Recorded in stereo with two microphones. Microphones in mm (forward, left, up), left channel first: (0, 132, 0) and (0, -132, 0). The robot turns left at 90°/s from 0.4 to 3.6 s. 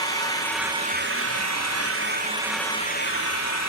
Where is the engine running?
15° left, 2 m; by 3.7 s 85° left, 2 m.